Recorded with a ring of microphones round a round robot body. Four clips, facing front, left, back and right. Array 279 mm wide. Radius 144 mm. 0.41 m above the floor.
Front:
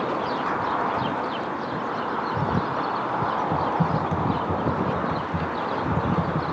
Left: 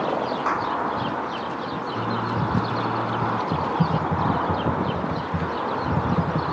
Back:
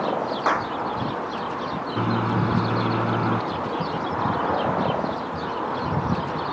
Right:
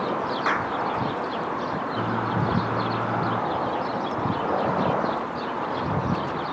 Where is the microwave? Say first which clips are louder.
Left 1 dB, back 6 dB; straight behind.